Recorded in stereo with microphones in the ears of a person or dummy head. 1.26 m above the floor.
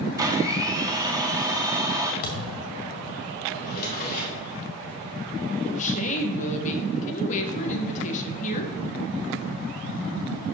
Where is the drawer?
50° left (ahead or behind), 1.9 m.